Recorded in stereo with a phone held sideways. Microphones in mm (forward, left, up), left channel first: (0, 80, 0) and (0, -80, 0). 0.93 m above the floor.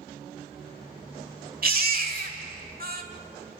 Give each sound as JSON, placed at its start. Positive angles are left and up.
{"t": 1.6, "sound": "a baby crying", "side_deg": -60, "distance_m": 1.4}